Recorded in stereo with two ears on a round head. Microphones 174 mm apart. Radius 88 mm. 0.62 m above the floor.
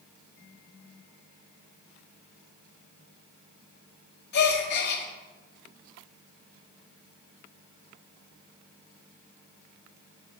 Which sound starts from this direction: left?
A gasp, at 4.3 s.